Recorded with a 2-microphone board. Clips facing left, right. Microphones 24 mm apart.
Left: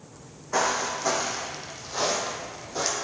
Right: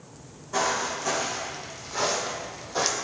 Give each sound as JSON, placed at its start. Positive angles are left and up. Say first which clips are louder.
{"t": 0.1, "sound": "footsteps", "louder": "left 2 dB", "side_deg": 50, "distance_m": 1.6}